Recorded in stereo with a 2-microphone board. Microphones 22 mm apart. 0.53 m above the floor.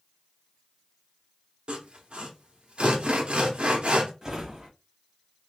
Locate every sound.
1.7 s sawing: 55° right (ahead or behind), 0.9 m
4.2 s a drawer: 25° right (ahead or behind), 1.2 m